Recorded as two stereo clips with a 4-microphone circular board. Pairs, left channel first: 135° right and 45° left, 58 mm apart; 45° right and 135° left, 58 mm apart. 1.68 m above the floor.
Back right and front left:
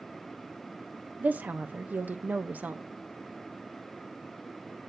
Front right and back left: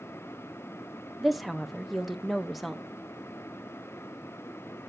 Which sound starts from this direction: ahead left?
A woman speaking, at 1.2 s.